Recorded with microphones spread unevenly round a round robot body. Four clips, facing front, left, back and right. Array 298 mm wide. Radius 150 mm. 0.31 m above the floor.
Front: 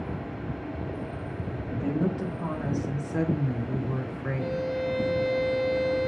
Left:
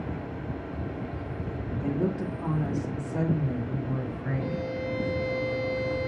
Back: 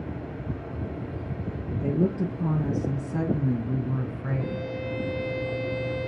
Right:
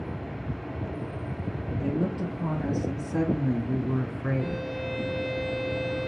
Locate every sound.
1.7 s a woman speaking: 165° right, 4 m; by 4.7 s 110° right, 3.5 m
4.4 s a violin: 120° right, 4.5 m